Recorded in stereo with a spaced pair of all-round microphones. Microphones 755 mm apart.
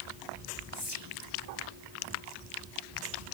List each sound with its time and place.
0.7 s whispering: 30° left (ahead or behind), 2 m